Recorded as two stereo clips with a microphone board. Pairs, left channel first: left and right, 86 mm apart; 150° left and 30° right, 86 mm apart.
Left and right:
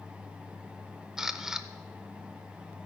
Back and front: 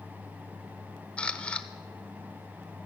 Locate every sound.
1.2 s a camera shutter: 160° right, 0.6 m